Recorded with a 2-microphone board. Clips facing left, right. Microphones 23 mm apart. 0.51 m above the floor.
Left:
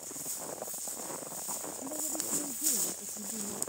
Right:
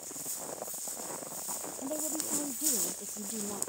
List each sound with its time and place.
1.8 s a woman speaking: 80° right; by 3.6 s 85° right